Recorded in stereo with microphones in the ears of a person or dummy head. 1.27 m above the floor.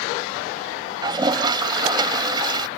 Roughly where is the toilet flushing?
Right.